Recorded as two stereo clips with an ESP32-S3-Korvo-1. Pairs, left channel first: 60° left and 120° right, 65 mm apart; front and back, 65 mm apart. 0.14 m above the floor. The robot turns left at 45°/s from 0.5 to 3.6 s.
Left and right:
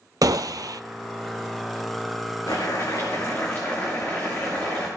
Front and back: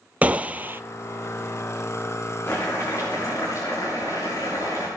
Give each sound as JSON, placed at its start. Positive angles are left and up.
{"t": 0.2, "sound": "a gunshot", "azimuth_deg": -115, "distance_m": 0.5}
{"t": 2.5, "sound": "boiling", "azimuth_deg": 50, "distance_m": 6.0}